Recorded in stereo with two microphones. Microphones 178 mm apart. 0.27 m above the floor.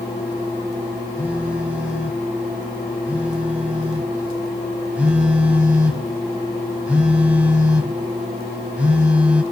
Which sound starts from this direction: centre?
A phone buzzing, at 1.2 s.